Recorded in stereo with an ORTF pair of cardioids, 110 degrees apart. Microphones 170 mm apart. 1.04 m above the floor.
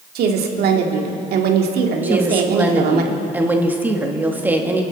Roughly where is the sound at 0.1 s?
Ahead right.